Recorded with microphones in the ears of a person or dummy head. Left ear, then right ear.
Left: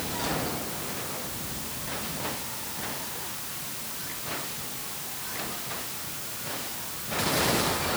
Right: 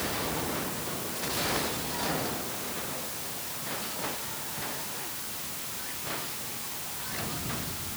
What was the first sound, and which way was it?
Only background noise.